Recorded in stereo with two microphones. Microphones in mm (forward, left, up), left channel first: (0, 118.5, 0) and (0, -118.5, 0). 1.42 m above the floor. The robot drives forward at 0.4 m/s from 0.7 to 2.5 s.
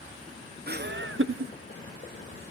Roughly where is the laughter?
Right.